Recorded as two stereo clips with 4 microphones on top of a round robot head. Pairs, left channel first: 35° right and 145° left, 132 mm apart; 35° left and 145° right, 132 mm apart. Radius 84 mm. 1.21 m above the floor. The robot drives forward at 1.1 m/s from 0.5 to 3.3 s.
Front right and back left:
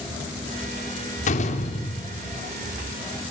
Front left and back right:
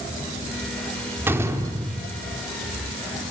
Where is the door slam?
70° right, 3 m; by 2.4 s 95° right, 2.5 m.